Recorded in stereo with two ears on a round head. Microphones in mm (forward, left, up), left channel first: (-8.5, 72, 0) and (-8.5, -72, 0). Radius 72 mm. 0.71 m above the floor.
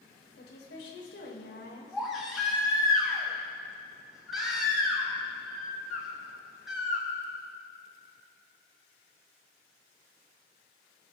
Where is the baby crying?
Centre (ahead or behind), 3.5 m.